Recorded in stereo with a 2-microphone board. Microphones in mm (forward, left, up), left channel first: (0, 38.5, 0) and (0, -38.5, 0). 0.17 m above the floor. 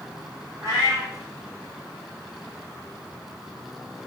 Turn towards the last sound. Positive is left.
turn(degrees=-40)  # may be behind; listen again after turning